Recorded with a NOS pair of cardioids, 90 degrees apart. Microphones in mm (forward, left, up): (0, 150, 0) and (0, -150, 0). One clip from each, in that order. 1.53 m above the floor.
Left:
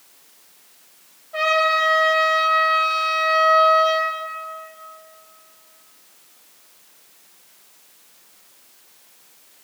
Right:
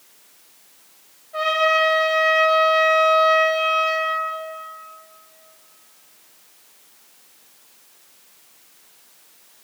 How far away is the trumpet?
About 2 m.